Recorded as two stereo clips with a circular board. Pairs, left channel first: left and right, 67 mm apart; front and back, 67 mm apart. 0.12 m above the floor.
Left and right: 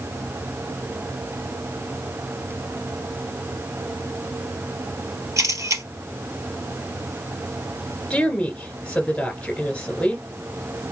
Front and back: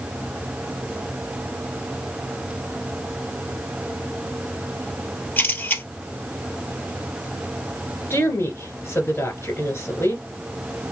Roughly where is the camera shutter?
Ahead right.